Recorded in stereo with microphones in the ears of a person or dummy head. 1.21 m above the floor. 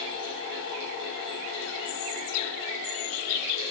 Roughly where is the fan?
Left.